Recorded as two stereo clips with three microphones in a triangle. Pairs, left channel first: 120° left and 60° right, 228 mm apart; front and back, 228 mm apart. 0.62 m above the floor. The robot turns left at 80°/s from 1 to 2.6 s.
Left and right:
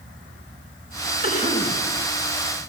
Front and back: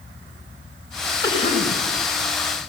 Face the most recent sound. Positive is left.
turn(degrees=-35)